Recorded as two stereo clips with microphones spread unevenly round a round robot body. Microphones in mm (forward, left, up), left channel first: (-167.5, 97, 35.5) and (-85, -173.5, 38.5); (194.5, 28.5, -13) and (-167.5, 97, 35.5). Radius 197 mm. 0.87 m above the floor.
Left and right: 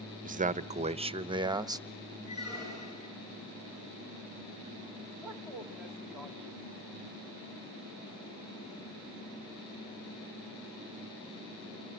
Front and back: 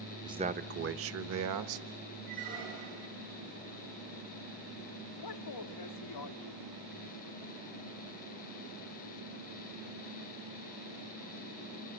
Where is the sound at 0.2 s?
105° right, 0.8 m; by 1.9 s 150° right, 1.3 m.